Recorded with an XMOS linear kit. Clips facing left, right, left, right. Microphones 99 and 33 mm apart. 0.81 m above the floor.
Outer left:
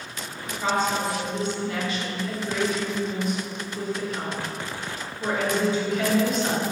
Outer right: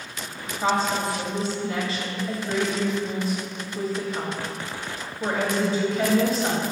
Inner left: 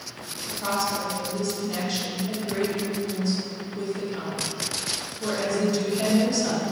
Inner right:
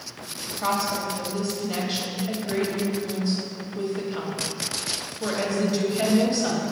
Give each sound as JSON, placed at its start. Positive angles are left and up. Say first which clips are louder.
{"t": 0.4, "sound": "a woman speaking", "louder": "outer right 1 dB, inner right 1 dB", "side_deg": -35, "distance_m": 1.6}